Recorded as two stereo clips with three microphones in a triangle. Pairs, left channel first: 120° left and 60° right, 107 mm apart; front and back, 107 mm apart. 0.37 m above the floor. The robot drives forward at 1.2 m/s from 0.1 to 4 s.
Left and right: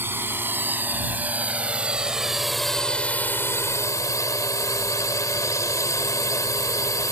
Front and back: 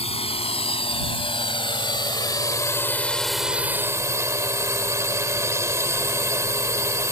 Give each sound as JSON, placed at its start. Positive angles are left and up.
{"t": 0.0, "sound": "a drone", "azimuth_deg": 10}